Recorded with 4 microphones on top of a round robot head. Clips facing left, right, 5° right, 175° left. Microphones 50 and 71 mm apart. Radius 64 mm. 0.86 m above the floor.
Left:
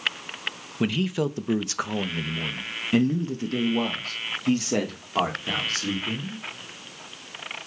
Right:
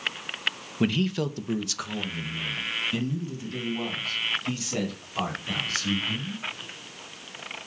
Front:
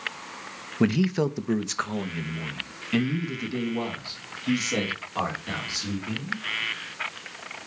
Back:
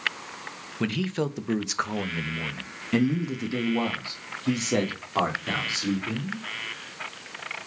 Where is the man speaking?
Straight ahead, 0.7 m; by 6.5 s 120° left, 3 m.